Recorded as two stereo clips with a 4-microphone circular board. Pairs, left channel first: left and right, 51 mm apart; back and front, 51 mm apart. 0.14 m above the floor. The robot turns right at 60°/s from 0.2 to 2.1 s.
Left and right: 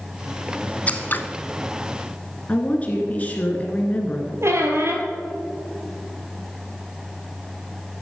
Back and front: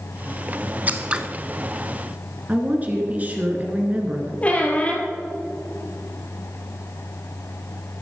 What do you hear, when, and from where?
0.9 s scissors: 40° left, 0.6 m; by 1.2 s 65° left, 0.6 m
2.5 s a woman speaking: 45° left, 1.9 m
4.4 s a squeak: 120° right, 1.7 m